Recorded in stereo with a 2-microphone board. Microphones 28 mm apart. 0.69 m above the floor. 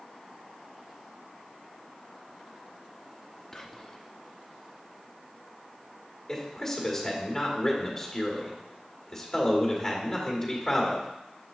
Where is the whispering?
15° left (ahead or behind), 0.7 m.